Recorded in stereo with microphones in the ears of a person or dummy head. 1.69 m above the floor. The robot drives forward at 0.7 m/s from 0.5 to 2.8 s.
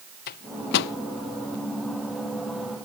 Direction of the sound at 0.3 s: 60° left (ahead or behind).